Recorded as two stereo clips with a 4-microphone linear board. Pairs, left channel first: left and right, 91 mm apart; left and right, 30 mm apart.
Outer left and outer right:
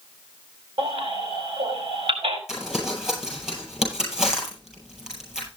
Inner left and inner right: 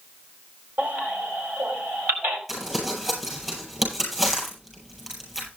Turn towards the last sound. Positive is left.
turn(degrees=-10)  # may be behind; listen again after turning